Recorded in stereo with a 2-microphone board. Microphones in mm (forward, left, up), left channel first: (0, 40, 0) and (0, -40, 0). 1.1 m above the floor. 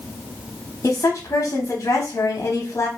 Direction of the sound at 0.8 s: 45° left (ahead or behind).